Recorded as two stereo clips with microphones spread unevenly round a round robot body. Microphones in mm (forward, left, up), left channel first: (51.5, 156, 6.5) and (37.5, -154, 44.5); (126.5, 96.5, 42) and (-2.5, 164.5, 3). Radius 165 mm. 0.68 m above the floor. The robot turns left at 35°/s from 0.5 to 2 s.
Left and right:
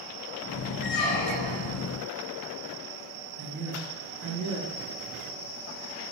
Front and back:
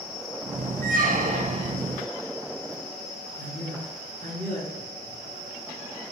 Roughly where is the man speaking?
Behind right.